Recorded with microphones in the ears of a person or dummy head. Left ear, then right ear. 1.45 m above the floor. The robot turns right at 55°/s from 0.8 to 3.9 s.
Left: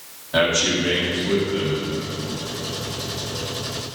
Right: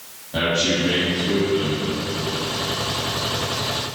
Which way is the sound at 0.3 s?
125° left.